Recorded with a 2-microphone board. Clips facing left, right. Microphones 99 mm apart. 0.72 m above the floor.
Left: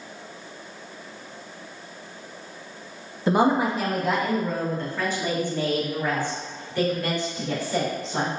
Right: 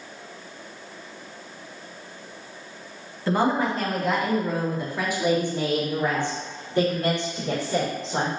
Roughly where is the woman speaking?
Centre.